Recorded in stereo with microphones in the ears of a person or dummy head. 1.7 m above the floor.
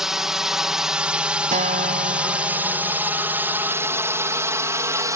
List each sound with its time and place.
0.0 s a drone: 10° right (ahead or behind); by 5.2 s 25° right (ahead or behind)
1.5 s a guitar: 40° right (ahead or behind)